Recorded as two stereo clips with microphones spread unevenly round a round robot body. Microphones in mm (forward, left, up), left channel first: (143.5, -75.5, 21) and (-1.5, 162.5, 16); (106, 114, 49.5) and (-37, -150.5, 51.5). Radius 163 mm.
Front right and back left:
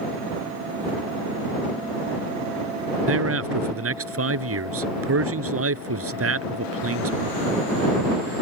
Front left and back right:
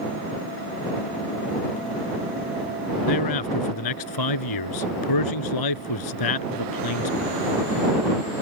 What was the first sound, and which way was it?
A man speaking, 85° left.